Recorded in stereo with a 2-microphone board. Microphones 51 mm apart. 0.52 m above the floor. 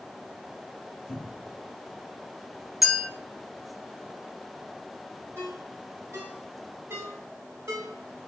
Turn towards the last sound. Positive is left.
turn(degrees=-70)  # may be behind; listen again after turning